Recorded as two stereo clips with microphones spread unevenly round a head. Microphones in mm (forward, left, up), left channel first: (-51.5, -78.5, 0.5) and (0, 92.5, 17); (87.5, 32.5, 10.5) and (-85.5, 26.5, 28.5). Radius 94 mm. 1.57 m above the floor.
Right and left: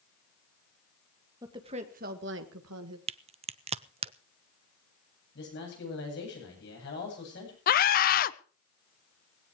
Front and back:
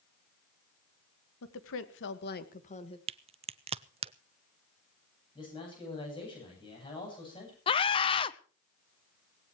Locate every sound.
1.4 s a woman speaking: straight ahead, 1.9 m; by 3.0 s 65° left, 2.0 m
3.1 s a crack: 130° left, 0.5 m
5.3 s a man speaking: 65° right, 9.5 m
7.7 s a scream: 60° right, 0.7 m